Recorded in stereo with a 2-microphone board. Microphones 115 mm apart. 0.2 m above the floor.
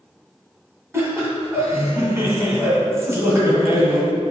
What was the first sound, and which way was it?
Laughter, 25° right (ahead or behind).